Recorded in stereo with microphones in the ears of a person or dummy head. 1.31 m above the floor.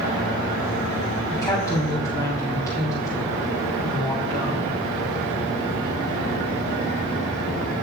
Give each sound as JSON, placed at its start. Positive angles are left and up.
{"t": 1.3, "sound": "a woman speaking", "side_deg": 20, "distance_m": 4.0}